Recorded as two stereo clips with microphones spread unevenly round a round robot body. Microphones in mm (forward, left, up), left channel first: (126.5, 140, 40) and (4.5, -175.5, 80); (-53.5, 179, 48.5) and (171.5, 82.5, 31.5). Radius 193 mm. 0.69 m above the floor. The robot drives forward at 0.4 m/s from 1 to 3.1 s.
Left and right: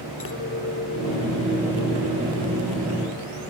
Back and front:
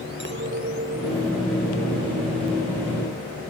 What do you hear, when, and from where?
0.2 s a clink: 15° left; by 3.3 s 20° left